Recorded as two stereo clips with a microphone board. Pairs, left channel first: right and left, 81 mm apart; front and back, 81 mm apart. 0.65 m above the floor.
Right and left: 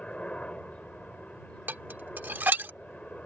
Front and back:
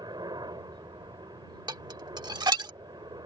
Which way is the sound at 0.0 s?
165° right.